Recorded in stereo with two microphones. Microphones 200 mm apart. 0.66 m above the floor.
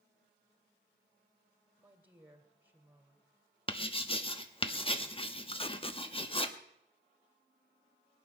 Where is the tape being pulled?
30° left (ahead or behind), 0.7 m.